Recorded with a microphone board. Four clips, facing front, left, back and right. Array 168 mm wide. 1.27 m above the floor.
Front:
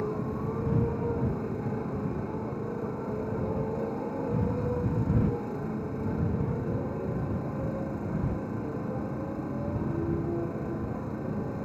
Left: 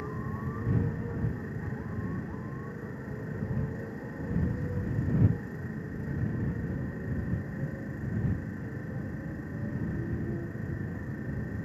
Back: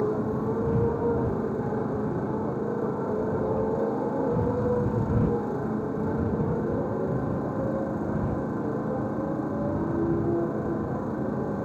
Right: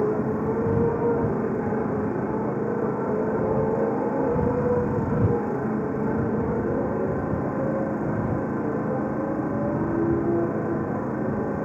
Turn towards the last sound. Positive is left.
turn(degrees=-115)